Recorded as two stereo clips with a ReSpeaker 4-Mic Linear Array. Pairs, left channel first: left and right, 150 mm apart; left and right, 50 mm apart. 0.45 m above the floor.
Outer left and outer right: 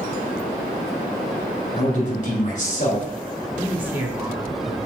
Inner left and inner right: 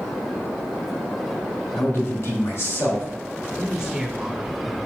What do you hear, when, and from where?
1.8 s a man speaking: 60° left (ahead or behind), 3 m
3.6 s a woman speaking: 15° right (ahead or behind), 1.3 m